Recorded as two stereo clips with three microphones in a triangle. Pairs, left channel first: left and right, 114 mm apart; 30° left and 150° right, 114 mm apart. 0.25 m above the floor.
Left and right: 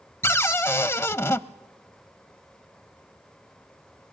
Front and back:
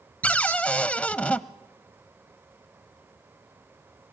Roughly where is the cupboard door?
Left.